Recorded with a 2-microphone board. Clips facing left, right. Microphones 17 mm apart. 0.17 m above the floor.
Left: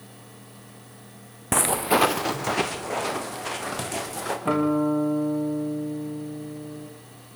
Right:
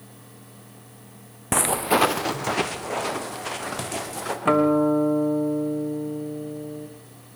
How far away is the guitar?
About 3 m.